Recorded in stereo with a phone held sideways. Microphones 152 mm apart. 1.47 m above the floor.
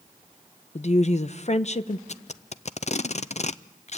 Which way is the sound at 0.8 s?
50° left (ahead or behind).